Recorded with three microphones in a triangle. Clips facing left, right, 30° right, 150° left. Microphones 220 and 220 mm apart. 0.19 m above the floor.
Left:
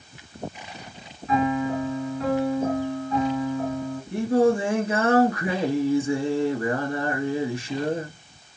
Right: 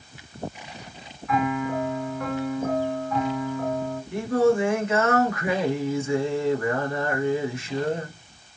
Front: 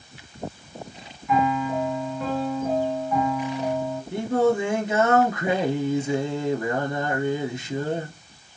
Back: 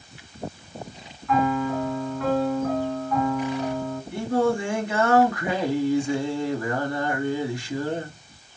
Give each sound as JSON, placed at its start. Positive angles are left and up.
{"t": 1.3, "sound": "a piano", "azimuth_deg": 45, "distance_m": 2.5}
{"t": 4.1, "sound": "singing", "azimuth_deg": 35, "distance_m": 1.3}